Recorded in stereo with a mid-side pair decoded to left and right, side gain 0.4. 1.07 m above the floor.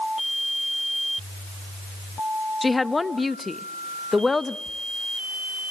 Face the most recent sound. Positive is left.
turn(degrees=40)